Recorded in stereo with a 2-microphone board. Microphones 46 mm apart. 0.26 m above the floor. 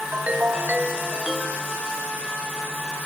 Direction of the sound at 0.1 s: 35° right (ahead or behind).